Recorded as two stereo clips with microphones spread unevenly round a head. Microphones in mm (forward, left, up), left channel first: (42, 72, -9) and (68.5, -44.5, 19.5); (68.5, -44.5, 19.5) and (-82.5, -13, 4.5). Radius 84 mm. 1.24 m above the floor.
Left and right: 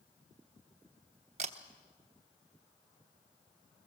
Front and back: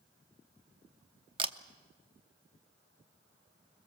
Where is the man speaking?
I don't hear a man speaking.